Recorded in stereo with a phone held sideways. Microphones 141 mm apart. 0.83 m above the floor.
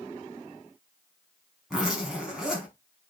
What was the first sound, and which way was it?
A zipper, 5° right (ahead or behind).